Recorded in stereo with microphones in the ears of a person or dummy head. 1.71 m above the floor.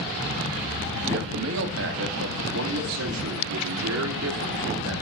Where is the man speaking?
60° right (ahead or behind), 2 m; by 4.9 s 85° right, 4.5 m.